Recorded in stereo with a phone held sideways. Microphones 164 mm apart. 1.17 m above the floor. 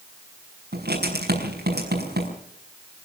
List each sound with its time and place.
0.7 s writing: 85° right, 6 m